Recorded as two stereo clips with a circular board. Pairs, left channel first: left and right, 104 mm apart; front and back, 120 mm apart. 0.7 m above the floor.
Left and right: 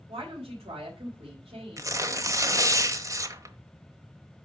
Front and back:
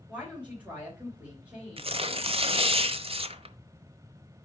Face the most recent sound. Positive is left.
turn(degrees=-145)